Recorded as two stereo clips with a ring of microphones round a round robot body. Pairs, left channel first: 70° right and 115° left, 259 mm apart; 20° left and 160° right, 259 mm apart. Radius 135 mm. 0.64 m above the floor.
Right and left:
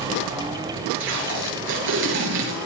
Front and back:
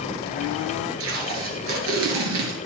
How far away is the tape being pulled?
About 5.5 m.